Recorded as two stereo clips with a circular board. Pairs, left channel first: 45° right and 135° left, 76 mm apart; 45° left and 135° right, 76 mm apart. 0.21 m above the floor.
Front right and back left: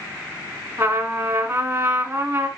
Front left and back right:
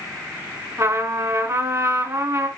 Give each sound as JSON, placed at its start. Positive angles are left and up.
{"t": 0.8, "sound": "a trumpet", "azimuth_deg": -170, "distance_m": 2.0}